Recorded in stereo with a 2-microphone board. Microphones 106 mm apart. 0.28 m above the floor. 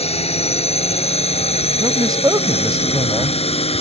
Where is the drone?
75° left (ahead or behind); by 3.8 s 70° left (ahead or behind).